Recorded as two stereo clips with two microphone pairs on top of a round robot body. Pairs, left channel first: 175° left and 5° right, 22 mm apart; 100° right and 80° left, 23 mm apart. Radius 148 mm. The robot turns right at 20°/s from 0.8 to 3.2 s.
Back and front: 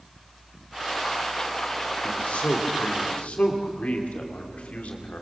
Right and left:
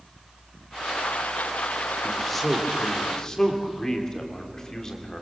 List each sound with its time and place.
2.0 s a man speaking: 170° left, 3 m; by 5.2 s 165° right, 3 m